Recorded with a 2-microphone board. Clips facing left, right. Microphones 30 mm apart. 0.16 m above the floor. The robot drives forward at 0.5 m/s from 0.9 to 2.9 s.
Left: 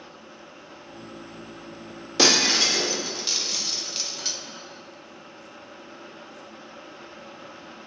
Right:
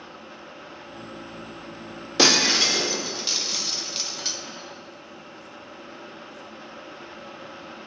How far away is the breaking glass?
About 1.3 m.